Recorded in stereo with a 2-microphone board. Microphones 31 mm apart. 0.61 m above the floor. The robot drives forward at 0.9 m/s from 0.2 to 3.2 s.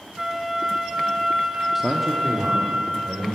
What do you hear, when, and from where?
0.2 s a flute: 10° right (ahead or behind), 0.6 m; by 2.8 s 5° right (ahead or behind), 2.5 m
1.8 s a man speaking: 5° right (ahead or behind), 0.6 m